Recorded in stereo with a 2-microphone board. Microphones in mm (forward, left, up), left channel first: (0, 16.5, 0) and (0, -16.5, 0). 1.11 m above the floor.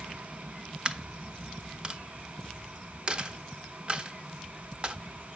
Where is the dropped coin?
30° right (ahead or behind), 0.7 m.